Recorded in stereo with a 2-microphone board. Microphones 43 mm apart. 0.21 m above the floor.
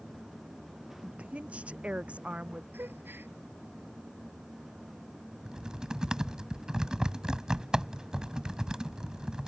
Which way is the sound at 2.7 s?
55° right (ahead or behind).